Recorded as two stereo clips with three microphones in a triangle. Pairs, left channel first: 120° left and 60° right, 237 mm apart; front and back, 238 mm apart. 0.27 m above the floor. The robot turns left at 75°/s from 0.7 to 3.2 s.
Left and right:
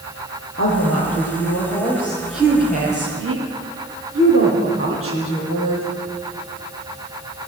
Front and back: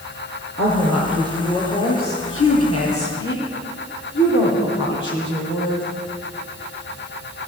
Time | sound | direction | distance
0.6 | a woman speaking | 150° left | 9 m